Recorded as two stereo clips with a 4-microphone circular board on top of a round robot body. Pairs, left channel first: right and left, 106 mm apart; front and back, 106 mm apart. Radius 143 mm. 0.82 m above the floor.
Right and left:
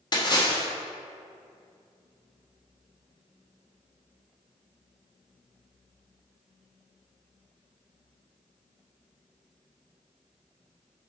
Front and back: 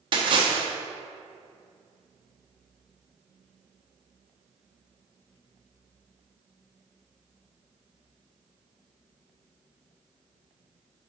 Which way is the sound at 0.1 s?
140° right.